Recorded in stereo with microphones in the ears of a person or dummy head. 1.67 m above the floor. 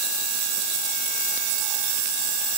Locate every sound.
Only background noise.